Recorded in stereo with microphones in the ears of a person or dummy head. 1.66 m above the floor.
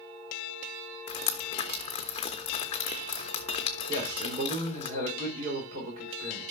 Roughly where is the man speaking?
Right.